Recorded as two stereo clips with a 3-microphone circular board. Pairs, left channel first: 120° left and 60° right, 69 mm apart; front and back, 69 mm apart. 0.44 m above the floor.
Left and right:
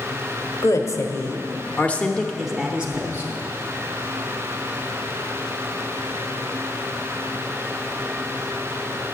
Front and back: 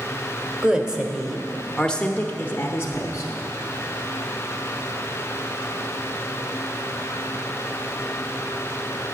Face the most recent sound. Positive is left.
turn(degrees=-10)